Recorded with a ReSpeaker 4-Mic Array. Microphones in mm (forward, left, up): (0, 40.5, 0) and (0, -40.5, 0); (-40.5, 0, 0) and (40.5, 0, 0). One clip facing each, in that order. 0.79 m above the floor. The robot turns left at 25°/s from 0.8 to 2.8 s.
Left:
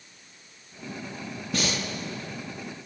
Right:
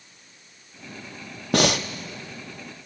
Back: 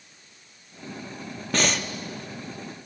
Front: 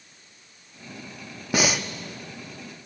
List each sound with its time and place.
1.5 s breathing: 80° right, 0.9 m; by 1.9 s 85° right, 0.9 m